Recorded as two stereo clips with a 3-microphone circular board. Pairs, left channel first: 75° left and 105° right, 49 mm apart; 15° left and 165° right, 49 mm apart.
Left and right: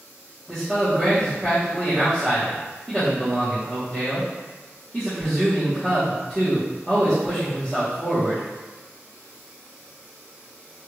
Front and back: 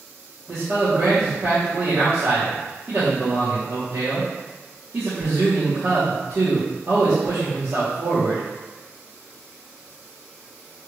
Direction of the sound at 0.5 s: 165° left.